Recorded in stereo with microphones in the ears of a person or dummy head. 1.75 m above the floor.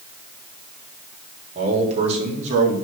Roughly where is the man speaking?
Right.